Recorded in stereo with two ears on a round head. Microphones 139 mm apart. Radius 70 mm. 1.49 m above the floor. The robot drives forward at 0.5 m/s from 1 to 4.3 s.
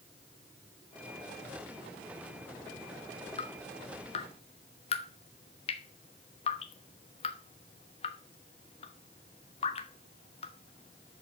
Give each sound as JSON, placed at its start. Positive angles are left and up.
{"t": 3.4, "sound": "dripping", "side_deg": 35, "distance_m": 1.0}